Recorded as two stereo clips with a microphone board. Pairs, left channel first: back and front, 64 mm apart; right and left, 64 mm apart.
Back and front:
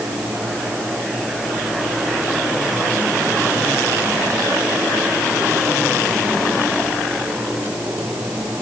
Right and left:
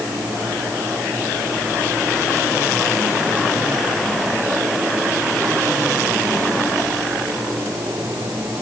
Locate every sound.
Only background noise.